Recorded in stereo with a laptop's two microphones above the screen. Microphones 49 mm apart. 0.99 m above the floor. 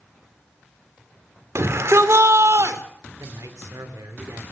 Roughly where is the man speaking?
Right.